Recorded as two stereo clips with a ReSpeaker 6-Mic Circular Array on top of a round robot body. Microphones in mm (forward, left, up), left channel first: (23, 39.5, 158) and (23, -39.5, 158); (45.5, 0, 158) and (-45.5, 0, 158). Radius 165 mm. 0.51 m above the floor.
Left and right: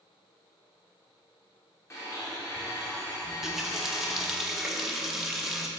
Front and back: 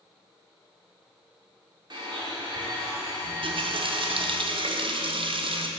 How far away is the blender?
About 3 m.